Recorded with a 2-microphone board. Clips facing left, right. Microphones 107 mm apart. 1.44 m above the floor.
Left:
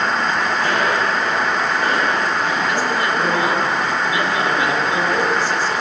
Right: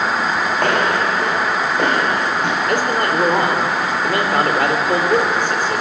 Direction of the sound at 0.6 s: 60° right (ahead or behind).